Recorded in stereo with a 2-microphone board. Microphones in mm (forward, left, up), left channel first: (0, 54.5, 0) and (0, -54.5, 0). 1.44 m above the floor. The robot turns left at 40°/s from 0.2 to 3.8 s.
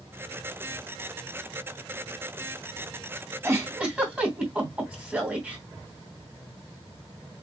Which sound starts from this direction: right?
A giggle, at 3.4 s.